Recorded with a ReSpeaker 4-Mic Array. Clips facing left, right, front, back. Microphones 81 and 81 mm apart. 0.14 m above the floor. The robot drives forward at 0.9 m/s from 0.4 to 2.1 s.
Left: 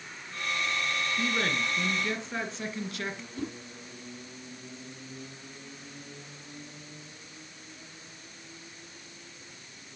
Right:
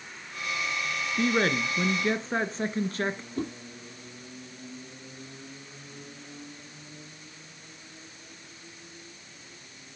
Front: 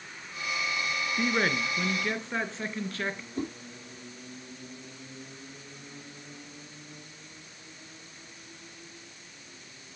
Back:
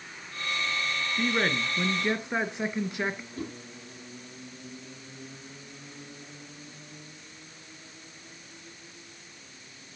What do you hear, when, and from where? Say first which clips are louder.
1.2 s a man speaking: right 7 dB, even; 75° right, 1.7 m; by 3.3 s 115° right, 1.7 m
3.4 s a whoosh: right 3 dB, front 3 dB; 55° right, 5.5 m